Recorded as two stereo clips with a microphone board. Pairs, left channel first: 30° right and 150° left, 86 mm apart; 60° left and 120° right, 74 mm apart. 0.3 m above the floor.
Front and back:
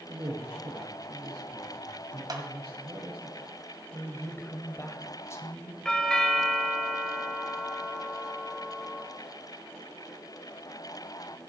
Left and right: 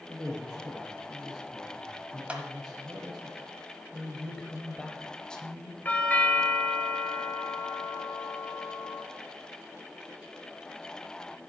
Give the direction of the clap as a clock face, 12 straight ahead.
6 o'clock.